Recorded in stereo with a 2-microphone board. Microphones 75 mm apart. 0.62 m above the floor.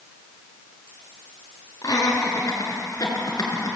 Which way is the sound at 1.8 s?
45° left (ahead or behind).